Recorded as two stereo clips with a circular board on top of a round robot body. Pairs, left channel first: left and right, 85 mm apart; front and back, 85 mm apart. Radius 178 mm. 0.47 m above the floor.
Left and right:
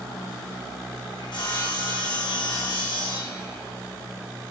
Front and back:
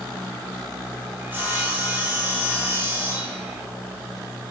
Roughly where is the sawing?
Left.